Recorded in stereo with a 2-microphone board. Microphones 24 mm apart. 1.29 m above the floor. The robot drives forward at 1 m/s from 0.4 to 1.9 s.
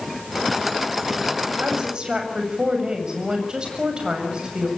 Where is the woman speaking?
35° right (ahead or behind), 7.5 m.